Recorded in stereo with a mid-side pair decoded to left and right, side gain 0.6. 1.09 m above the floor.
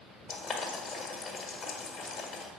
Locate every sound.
0.3 s boiling: 45° left, 1.8 m